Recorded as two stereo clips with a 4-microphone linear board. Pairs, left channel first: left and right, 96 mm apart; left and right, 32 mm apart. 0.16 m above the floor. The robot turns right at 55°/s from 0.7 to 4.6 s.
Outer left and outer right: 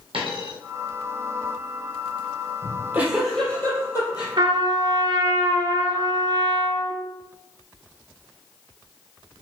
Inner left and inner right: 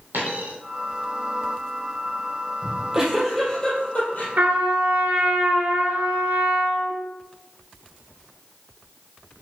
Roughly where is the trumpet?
Right.